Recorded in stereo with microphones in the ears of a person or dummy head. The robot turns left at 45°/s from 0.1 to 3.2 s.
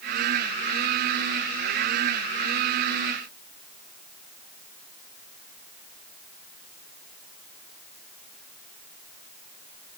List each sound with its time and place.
Only background noise.